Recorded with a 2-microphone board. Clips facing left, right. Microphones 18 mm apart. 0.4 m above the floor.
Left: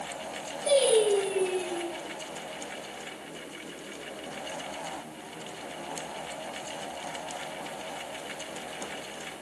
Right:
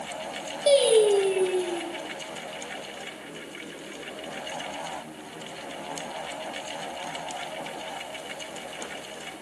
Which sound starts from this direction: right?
Singing, at 0.7 s.